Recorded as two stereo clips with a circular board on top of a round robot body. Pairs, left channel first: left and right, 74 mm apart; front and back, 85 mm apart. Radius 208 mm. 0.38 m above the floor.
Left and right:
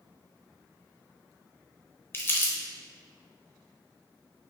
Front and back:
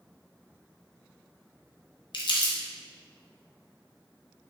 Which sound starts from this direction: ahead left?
Crumpling, at 2.1 s.